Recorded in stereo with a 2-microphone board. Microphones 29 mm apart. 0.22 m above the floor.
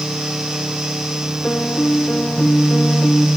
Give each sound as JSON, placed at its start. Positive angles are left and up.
{"t": 1.4, "sound": "a piano", "side_deg": 70}